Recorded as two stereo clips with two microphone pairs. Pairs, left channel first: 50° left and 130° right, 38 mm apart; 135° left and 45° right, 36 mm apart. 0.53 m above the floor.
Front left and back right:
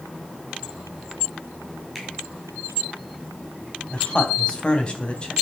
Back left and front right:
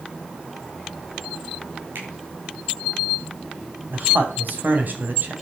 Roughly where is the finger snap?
Ahead right.